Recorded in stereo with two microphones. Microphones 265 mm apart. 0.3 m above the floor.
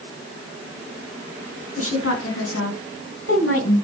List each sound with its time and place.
1.8 s a woman speaking: 60° left (ahead or behind), 3 m; by 3.8 s 55° left (ahead or behind), 2.5 m